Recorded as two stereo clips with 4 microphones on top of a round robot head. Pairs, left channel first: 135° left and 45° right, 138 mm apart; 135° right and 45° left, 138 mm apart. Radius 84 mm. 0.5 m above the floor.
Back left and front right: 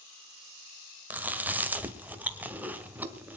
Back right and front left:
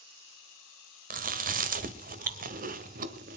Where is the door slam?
No door slam in this recording.